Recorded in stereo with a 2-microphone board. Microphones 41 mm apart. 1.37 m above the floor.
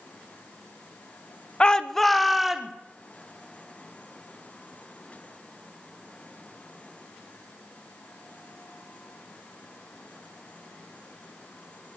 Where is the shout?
25° left (ahead or behind), 0.8 m; by 2.7 s 5° right (ahead or behind), 1.7 m.